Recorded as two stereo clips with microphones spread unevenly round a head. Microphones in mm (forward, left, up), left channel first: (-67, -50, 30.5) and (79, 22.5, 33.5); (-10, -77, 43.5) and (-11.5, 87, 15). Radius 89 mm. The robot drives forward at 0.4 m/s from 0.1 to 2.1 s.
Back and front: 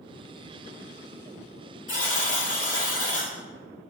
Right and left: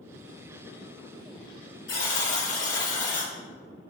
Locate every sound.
1.9 s a buzzer: 115° right, 2 m